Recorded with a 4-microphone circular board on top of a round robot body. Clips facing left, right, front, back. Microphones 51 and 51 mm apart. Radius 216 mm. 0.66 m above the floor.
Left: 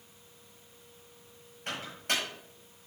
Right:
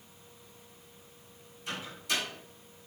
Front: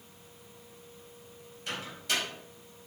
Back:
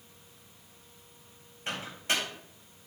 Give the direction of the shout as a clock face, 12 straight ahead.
I don't hear a shout.